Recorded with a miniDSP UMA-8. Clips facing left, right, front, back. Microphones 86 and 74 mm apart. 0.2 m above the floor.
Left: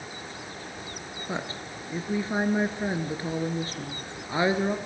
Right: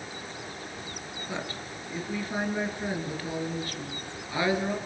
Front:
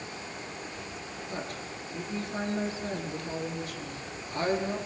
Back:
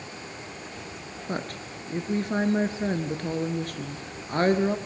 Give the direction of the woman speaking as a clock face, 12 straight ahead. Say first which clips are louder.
Left 3 dB, back 6 dB; 7 o'clock.